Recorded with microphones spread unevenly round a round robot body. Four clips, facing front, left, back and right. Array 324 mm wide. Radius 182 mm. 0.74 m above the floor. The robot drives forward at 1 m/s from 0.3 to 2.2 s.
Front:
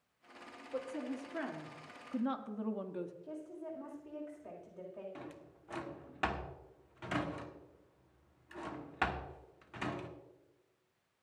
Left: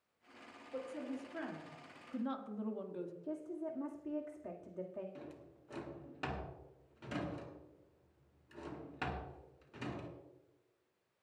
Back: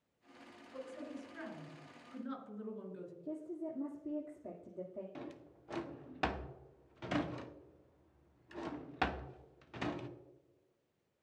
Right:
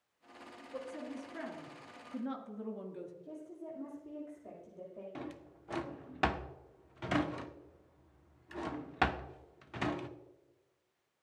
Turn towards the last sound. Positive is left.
turn(degrees=-80)